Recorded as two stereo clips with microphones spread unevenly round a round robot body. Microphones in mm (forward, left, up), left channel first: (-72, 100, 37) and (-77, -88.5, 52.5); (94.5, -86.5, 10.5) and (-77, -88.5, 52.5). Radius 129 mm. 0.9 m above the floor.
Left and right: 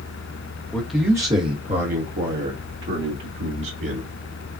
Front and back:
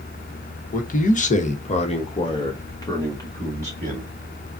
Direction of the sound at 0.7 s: 5° left.